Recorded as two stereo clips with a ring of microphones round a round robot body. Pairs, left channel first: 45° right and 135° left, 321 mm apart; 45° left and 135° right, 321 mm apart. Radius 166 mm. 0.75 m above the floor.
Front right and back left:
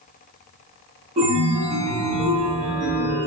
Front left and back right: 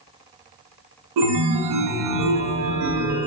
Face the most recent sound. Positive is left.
turn(degrees=-155)